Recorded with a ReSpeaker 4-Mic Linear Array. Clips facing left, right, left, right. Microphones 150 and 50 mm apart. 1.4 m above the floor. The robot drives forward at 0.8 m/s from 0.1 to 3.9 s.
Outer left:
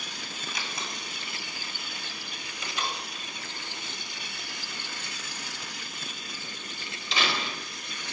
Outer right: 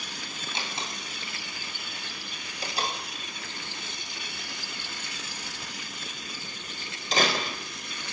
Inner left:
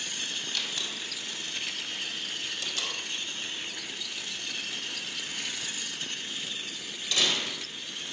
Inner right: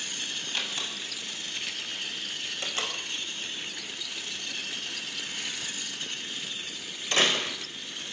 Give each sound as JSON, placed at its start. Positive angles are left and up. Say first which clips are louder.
{"t": 0.5, "sound": "a door slam", "louder": "outer right 3 dB, inner right 3 dB", "side_deg": -25, "distance_m": 6.5}